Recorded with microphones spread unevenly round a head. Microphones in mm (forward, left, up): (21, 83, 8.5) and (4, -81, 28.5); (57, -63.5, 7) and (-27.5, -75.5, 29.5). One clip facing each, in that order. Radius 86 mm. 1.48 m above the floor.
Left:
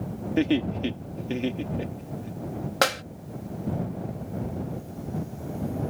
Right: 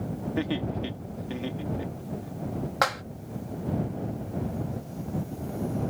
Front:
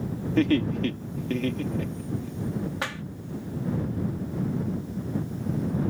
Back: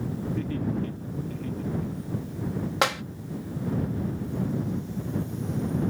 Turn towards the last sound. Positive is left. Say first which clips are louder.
# left 4 dB, back 7 dB
turn(degrees=145)